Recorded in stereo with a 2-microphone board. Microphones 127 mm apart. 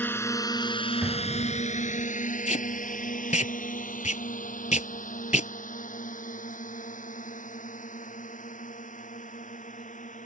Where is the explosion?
15° right (ahead or behind).